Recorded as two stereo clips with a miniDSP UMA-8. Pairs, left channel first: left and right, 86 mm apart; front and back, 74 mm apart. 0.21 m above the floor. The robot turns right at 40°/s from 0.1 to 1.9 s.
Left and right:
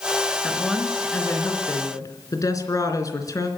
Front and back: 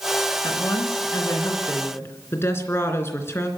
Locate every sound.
0.4 s a woman speaking: 5° right, 3 m; by 3.5 s 50° left, 3 m